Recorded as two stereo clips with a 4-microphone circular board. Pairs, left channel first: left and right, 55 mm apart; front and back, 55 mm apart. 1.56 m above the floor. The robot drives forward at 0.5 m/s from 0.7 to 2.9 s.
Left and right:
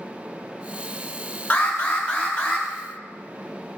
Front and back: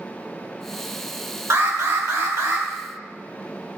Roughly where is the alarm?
Behind left.